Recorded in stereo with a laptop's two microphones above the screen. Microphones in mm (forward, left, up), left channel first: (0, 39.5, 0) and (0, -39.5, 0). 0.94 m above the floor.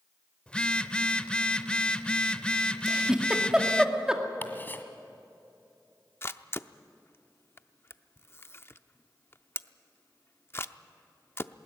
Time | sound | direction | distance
0.5 | a phone buzzing | 15° left (ahead or behind) | 0.7 m
2.9 | a giggle | 10° right (ahead or behind) | 2 m
4.4 | ticking | 25° left (ahead or behind) | 1.7 m
6.2 | a camera shutter | 30° left (ahead or behind) | 0.5 m